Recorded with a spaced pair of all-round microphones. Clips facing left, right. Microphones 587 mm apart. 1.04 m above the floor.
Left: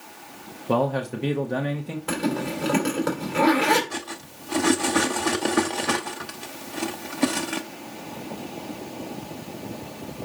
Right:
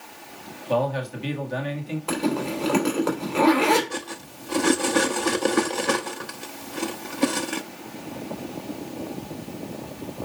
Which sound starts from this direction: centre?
Cutlery clinking, at 3.9 s.